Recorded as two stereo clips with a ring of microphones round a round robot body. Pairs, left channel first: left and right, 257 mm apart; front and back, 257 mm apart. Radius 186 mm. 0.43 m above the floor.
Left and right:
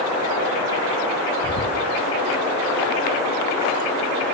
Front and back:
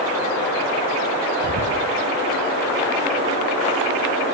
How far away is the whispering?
About 4.5 m.